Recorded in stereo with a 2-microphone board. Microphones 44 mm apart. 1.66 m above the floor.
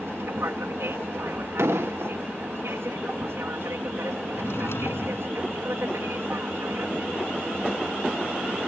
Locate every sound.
0.0 s an aircraft: 65° right (ahead or behind)
1.6 s an explosion: 85° right
4.3 s a drawer: 65° left (ahead or behind)